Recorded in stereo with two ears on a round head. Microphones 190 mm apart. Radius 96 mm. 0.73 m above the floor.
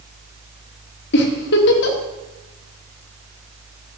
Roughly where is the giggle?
Left.